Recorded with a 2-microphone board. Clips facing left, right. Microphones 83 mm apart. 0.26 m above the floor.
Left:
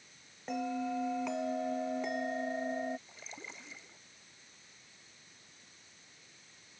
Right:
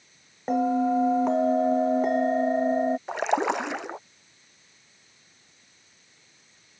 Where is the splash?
75° right (ahead or behind).